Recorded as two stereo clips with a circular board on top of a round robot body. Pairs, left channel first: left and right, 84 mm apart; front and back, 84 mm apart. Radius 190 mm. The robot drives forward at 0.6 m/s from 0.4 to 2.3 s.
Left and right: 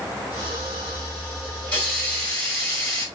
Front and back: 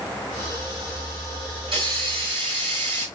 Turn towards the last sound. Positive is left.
turn(degrees=165)